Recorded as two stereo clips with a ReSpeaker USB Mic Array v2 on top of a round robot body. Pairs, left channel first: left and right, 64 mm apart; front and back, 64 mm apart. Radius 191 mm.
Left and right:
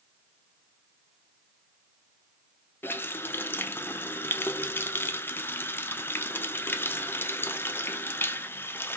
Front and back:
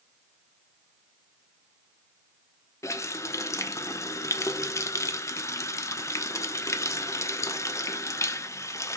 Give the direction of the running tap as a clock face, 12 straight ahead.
11 o'clock.